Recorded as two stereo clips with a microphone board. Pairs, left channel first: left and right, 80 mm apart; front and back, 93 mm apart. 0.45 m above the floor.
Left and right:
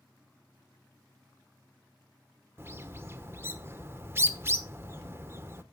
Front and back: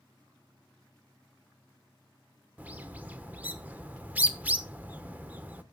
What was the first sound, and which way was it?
A bird, 120° right.